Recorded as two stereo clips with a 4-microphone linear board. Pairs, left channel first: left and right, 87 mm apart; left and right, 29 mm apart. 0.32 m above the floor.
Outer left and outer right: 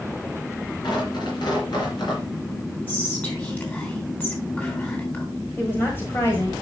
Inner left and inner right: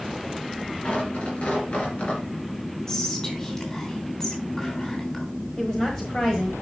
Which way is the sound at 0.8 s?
60° left (ahead or behind).